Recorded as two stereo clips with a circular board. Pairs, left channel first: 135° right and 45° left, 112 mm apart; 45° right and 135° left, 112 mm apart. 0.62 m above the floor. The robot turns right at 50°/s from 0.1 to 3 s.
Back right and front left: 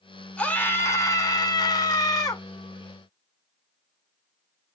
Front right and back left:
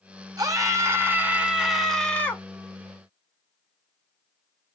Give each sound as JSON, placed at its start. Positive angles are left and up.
{"t": 0.4, "sound": "a scream", "azimuth_deg": 155, "distance_m": 0.8}